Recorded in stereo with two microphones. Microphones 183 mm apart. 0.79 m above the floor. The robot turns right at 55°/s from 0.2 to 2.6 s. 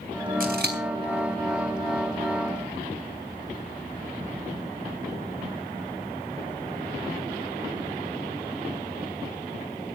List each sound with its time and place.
0.4 s scissors: 60° right (ahead or behind), 3.5 m; by 0.8 s 80° right, 3.5 m